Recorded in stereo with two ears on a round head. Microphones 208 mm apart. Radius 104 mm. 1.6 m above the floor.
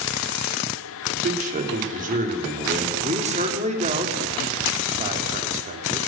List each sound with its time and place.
1.1 s a man speaking: 35° right (ahead or behind), 4 m
3.0 s a man speaking: 30° right (ahead or behind), 3.5 m